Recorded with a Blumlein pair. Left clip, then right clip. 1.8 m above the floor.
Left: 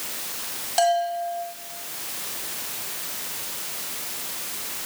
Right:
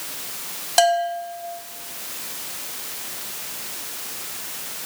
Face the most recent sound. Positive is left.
turn(degrees=-65)